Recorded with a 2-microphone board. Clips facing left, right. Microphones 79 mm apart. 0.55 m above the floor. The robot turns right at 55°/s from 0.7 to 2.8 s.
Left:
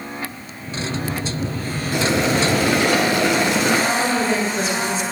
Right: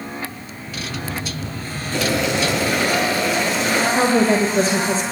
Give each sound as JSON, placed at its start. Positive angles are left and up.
{"t": 1.9, "sound": "boiling", "azimuth_deg": 15, "distance_m": 2.5}
{"t": 3.9, "sound": "a woman speaking", "side_deg": -40, "distance_m": 2.5}